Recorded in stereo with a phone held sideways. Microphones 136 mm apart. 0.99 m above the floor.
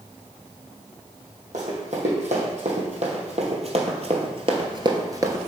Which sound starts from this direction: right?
Running footsteps, at 1.5 s.